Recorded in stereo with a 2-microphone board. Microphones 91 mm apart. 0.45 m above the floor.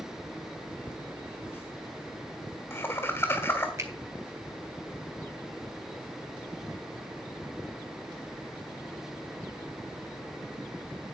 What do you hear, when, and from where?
0.9 s laughter: 25° left (ahead or behind), 1.1 m
3.8 s a finger snap: 30° right (ahead or behind), 3 m